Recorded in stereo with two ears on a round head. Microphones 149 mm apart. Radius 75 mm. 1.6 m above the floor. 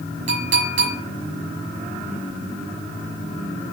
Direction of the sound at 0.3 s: 45° right (ahead or behind).